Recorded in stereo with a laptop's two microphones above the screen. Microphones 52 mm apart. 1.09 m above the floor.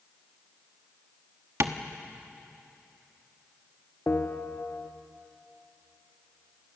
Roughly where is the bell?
Left.